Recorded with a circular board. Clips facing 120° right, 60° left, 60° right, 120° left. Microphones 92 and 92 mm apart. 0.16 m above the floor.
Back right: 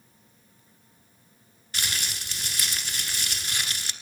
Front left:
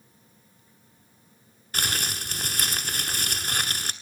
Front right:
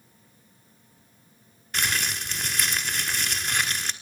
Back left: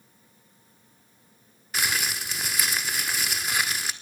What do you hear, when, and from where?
1.7 s crumpling: 35° left, 1.3 m